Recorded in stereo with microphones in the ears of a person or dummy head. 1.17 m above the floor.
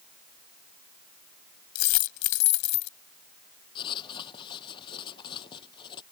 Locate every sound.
1.8 s a dropped coin: 65° left (ahead or behind)
3.8 s writing: 25° left (ahead or behind)